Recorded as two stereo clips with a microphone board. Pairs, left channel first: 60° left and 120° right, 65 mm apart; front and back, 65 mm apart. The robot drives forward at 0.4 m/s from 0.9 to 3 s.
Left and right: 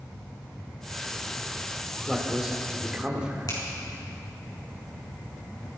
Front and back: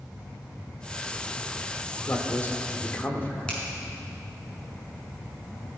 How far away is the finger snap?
About 5.5 m.